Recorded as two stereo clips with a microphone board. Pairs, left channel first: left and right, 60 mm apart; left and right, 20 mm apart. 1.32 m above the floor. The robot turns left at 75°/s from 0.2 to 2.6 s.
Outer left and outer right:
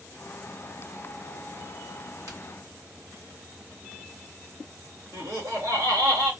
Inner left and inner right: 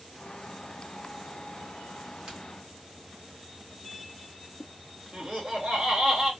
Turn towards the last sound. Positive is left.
turn(degrees=-55)  # may be behind; listen again after turning